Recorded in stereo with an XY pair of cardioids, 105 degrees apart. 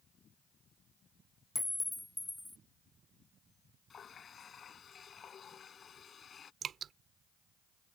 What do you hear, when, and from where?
1.6 s a clink: 10° left
3.9 s a running tap: 45° left
6.6 s dripping: 55° right